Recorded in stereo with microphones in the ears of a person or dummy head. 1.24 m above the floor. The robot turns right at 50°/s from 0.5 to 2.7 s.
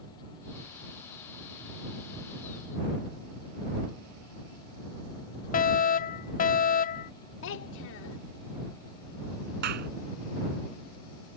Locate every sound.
5.5 s a fire alarm: 40° left (ahead or behind)
7.4 s a child speaking: 85° left
9.6 s a clap: 65° right (ahead or behind)